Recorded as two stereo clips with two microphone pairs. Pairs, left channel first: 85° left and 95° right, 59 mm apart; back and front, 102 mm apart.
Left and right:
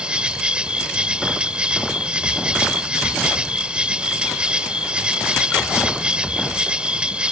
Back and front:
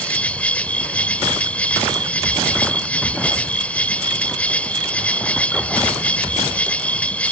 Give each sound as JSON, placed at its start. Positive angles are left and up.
{"t": 0.0, "sound": "an insect", "azimuth_deg": -130}